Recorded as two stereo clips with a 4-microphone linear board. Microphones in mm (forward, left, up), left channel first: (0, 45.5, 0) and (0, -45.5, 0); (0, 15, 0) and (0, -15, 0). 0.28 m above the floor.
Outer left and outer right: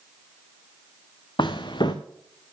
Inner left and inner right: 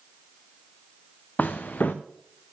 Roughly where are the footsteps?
Left.